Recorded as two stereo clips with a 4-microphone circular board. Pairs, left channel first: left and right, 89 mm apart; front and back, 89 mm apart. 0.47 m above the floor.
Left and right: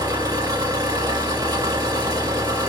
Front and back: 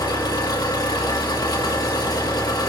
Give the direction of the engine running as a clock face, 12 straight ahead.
2 o'clock.